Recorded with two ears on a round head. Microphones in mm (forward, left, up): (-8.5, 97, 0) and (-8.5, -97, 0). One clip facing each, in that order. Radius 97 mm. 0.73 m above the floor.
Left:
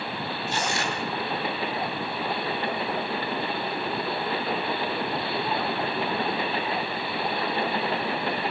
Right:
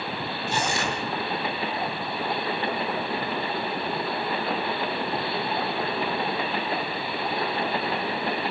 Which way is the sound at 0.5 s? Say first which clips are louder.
Right 2 dB; 70° right (ahead or behind).